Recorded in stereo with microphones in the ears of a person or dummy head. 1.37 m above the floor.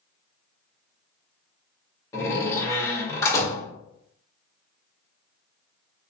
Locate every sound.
2.1 s a door slam: 20° left (ahead or behind), 1.9 m